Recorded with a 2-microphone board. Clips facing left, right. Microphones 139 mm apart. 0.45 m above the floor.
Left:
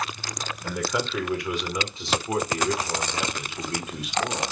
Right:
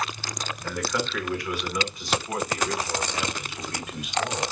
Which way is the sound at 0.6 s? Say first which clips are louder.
Left 1 dB; 15° left (ahead or behind).